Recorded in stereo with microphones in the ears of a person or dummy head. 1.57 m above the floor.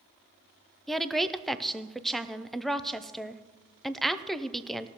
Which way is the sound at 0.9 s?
Centre (ahead or behind).